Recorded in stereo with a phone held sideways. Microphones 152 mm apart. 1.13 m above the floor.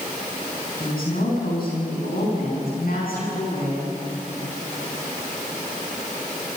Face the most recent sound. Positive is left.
turn(degrees=75)  # may be behind; listen again after turning